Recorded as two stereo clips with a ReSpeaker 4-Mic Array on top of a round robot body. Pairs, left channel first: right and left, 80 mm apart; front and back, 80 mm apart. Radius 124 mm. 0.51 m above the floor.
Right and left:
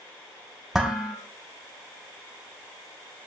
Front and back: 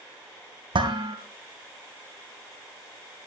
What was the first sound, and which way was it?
Dishes clattering, 175° left.